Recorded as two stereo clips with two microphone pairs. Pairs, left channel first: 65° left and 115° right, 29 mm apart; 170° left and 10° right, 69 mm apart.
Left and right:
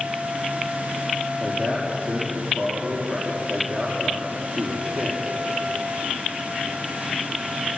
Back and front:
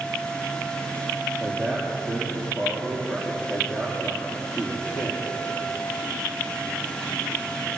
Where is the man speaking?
110° right, 6 m.